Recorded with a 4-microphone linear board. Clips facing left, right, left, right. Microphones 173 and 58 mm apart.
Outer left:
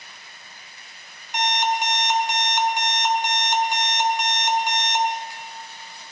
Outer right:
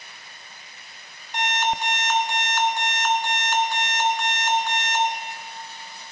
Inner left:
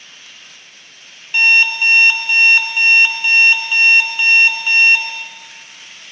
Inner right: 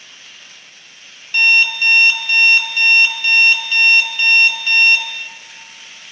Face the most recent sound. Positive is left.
turn(degrees=20)  # may be behind; listen again after turning